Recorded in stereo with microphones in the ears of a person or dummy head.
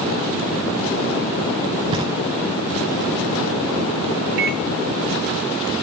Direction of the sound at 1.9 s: 20° right (ahead or behind).